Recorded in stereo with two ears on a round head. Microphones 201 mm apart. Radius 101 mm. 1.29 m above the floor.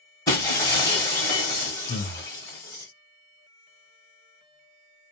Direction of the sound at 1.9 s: 40° left (ahead or behind).